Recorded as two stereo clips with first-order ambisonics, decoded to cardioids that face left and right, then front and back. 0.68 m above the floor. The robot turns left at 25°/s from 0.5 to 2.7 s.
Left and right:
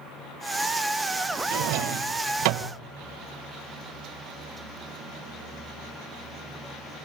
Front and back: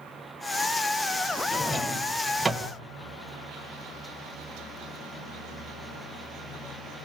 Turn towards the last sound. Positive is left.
turn(degrees=-105)